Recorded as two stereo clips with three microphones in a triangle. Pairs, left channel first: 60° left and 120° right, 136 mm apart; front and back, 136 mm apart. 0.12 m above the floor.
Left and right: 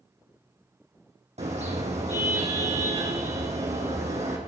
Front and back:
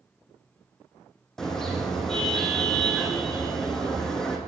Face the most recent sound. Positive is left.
turn(degrees=-85)